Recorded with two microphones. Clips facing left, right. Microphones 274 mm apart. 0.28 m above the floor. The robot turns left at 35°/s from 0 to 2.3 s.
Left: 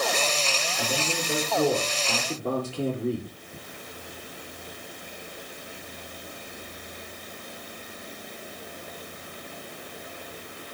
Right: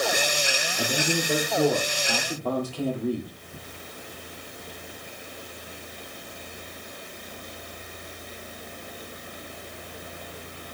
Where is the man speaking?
145° right, 4.5 m; by 3.3 s 160° left, 4.5 m.